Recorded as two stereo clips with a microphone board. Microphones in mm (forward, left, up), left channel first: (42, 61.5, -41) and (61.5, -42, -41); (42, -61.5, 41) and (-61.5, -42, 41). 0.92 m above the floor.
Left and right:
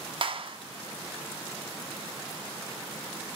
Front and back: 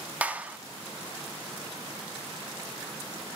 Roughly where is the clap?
Behind right.